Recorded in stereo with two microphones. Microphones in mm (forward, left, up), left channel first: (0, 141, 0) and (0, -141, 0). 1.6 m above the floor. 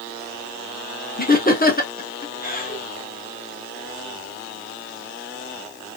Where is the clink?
No clink in this recording.